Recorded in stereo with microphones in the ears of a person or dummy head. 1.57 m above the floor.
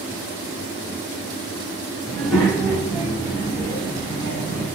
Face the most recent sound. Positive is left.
turn(degrees=-40)  # may be behind; listen again after turning